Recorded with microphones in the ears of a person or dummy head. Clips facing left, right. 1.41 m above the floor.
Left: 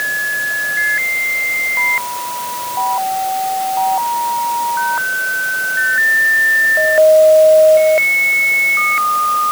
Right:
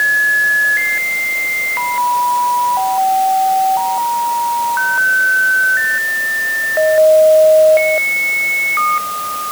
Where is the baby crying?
I don't hear a baby crying.